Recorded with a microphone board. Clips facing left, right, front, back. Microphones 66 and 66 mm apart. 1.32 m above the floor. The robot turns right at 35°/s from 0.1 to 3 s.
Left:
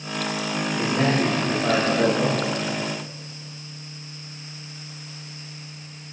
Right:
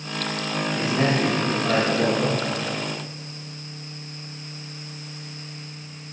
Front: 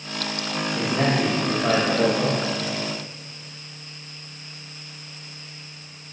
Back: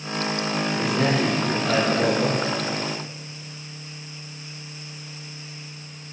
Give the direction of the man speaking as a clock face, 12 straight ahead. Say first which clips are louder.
Left 1 dB, front 1 dB; 12 o'clock.